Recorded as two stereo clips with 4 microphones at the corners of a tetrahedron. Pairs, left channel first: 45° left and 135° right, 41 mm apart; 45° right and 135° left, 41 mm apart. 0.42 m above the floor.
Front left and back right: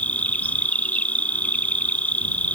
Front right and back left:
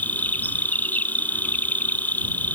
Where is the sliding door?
No sliding door in this recording.